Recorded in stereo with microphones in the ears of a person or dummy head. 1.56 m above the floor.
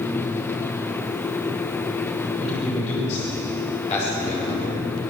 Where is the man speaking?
35° left (ahead or behind), 6.5 m.